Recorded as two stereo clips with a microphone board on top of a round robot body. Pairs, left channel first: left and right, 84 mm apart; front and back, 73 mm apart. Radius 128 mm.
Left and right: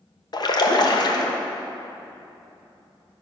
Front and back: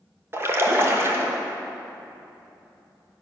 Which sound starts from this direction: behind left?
A splash, at 0.3 s.